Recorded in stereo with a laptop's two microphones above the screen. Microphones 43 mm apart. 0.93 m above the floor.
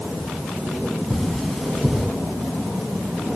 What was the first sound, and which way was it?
Cutlery clinking, 10° left (ahead or behind).